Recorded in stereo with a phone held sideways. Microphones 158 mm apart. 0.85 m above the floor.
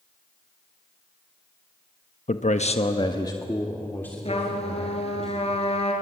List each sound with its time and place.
2.3 s a man speaking: 55° left (ahead or behind), 1.1 m; by 5.2 s 5° left (ahead or behind), 4 m
4.2 s a trumpet: 40° left (ahead or behind), 3.5 m